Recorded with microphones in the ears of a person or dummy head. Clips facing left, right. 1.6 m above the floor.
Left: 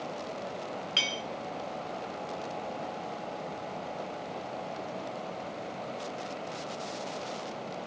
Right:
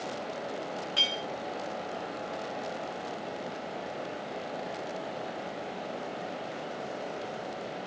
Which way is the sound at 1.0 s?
35° left (ahead or behind).